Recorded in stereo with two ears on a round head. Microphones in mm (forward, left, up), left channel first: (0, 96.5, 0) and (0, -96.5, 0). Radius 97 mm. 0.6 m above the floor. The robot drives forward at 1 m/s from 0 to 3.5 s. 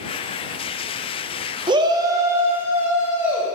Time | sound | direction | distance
1.7 | a shout | 20° right (ahead or behind) | 0.5 m